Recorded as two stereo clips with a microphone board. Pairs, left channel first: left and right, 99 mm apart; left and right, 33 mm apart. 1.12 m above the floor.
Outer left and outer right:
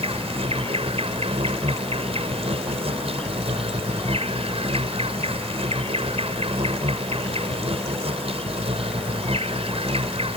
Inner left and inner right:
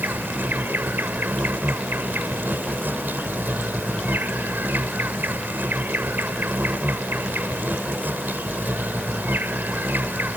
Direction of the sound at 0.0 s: 80° right.